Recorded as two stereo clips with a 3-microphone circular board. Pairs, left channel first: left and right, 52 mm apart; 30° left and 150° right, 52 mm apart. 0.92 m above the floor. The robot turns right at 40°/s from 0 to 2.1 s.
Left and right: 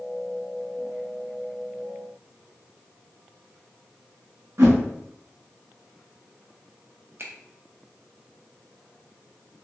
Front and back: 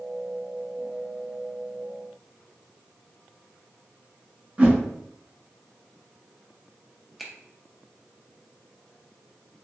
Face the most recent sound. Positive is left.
turn(degrees=-65)